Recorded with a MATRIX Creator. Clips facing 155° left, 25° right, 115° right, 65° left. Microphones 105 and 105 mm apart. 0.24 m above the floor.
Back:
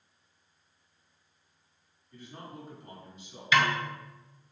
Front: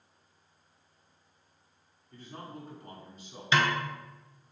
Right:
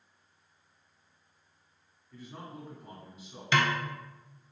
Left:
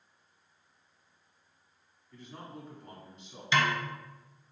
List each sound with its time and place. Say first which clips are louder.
2.1 s a man speaking: front 1 dB, right 1 dB; 30° right, 1.9 m
3.5 s a snare drum: back 1 dB, right 1 dB; 80° right, 0.7 m